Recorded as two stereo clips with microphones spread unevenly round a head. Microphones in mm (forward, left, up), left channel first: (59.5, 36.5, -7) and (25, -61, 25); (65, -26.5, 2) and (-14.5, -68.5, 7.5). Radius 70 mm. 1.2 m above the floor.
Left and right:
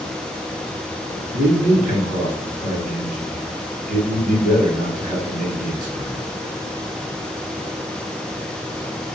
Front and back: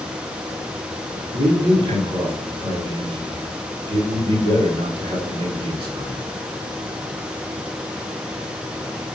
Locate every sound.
1.3 s a man speaking: 145° right, 2.5 m